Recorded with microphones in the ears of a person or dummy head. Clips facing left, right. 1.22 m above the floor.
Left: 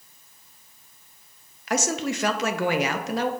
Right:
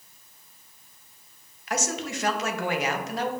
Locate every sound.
1.7 s a woman speaking: 50° left (ahead or behind), 0.7 m